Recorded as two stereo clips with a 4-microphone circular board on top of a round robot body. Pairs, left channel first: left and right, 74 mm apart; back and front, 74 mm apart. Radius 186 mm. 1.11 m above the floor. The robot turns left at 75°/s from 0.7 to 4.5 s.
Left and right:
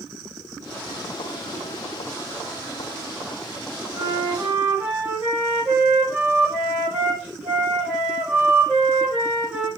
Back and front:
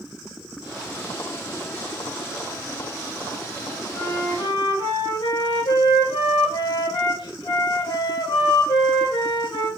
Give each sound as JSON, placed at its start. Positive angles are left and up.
{"t": 3.9, "sound": "a flute", "azimuth_deg": -120, "distance_m": 4.5}